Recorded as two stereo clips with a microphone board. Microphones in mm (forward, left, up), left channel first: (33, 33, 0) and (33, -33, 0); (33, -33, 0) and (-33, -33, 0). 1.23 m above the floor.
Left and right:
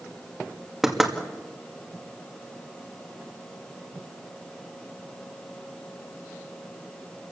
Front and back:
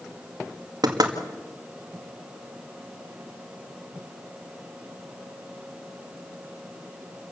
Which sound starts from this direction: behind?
Knocking, at 0.8 s.